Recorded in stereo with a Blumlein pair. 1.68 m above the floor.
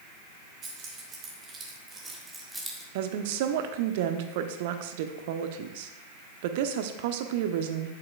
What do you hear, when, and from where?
0.6 s keys jangling: 30° right, 2.5 m; by 2.9 s straight ahead, 1.2 m
3.0 s a woman speaking: 50° right, 0.8 m